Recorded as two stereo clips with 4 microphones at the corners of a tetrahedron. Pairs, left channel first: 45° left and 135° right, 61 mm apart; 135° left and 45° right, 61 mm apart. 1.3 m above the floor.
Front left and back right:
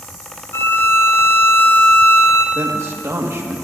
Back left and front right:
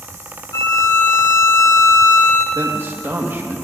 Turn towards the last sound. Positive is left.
turn(degrees=-95)